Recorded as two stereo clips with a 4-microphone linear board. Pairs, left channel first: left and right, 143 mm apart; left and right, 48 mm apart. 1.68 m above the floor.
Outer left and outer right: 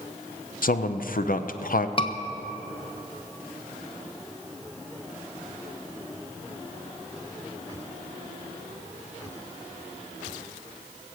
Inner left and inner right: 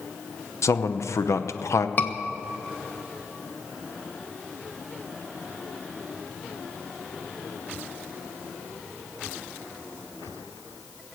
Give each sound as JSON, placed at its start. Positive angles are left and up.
{"t": 0.6, "sound": "a man speaking", "side_deg": 80, "distance_m": 0.8}
{"t": 2.0, "sound": "a scream", "side_deg": 35, "distance_m": 1.2}